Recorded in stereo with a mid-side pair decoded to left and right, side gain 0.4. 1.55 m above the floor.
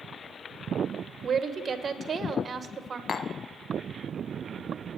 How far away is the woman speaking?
About 1.1 m.